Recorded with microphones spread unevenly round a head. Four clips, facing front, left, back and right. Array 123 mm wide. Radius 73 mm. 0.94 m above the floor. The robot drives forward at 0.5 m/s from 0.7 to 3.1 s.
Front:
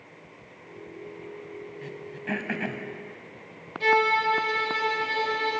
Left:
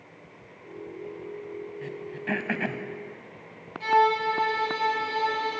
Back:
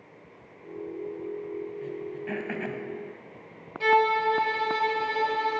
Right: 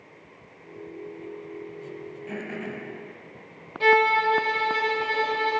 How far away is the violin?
About 4.5 m.